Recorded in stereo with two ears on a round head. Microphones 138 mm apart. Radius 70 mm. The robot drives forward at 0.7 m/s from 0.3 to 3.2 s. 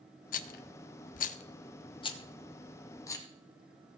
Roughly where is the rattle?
Left.